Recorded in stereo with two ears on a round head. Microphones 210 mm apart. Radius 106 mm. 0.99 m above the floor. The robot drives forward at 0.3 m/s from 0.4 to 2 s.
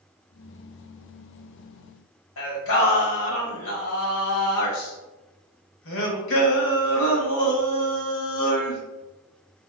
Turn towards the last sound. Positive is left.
turn(degrees=60)  # may be behind; listen again after turning